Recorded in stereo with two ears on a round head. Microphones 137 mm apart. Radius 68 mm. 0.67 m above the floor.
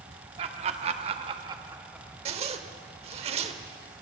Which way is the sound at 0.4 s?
40° right (ahead or behind).